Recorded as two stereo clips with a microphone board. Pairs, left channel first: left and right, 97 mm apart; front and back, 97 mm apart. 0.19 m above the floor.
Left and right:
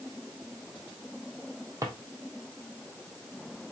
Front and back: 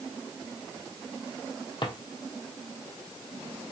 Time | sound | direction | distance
1.8 | a drawer | 30° right | 1.7 m